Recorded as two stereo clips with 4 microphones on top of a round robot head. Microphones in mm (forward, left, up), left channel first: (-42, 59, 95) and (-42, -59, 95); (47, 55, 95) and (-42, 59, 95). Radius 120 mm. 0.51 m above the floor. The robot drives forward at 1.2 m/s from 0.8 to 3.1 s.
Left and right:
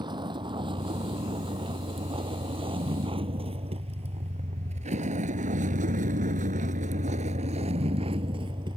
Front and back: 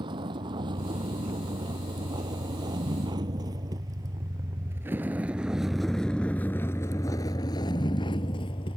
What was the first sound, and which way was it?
A vehicle, 140° right.